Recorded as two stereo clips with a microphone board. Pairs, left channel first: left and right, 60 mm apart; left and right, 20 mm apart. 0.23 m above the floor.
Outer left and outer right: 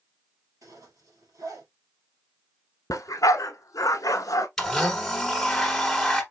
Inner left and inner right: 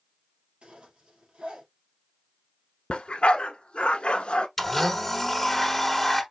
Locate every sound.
0.6 s a zipper: 80° right, 2.5 m
2.9 s a dog barking: 80° left, 0.7 m
4.6 s a blender: 5° left (ahead or behind), 1.2 m